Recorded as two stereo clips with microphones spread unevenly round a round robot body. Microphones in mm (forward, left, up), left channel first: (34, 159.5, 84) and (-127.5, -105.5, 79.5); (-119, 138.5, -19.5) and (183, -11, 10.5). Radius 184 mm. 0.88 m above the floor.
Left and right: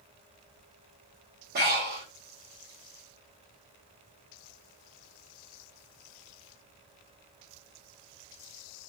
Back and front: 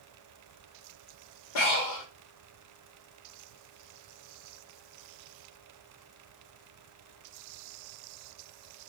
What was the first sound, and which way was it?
Breathing, 175° left.